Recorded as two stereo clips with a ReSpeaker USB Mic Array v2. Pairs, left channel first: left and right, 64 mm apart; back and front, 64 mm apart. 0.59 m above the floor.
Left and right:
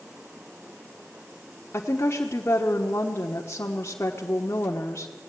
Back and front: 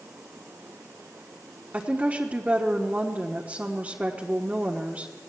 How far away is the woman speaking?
About 1.2 m.